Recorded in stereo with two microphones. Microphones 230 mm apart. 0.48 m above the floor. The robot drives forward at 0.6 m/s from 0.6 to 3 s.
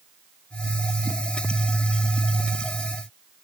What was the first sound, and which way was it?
Only background noise.